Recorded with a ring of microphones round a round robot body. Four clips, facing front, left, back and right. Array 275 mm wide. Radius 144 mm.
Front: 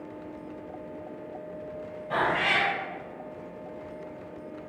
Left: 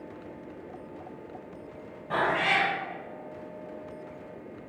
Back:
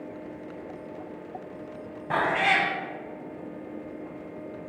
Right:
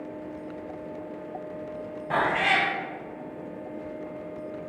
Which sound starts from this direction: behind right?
A cat meowing, at 2.1 s.